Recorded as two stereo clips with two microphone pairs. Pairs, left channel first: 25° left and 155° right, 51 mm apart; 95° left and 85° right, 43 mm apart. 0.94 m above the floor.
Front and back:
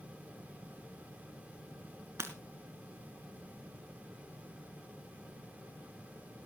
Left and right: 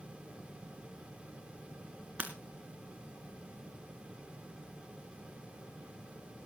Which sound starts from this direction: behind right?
Breaking glass, at 2.2 s.